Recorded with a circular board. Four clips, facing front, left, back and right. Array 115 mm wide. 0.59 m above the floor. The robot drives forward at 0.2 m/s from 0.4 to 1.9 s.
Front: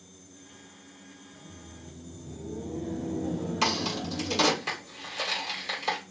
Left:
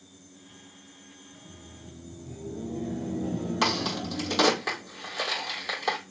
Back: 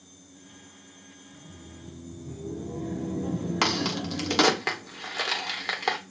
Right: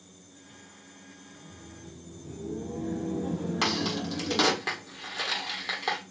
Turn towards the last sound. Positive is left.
turn(degrees=180)